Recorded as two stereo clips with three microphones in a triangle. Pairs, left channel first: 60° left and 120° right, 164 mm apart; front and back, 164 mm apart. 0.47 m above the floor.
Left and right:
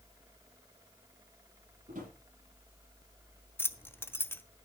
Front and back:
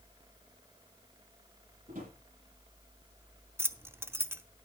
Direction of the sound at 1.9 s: 155° right.